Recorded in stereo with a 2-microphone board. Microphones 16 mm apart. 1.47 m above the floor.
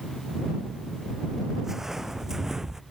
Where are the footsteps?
30° right (ahead or behind).